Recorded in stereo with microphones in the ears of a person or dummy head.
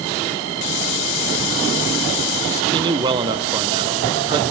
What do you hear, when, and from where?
0.6 s a hiss: 70° left (ahead or behind), 0.7 m
2.7 s a man speaking: 25° right (ahead or behind), 0.6 m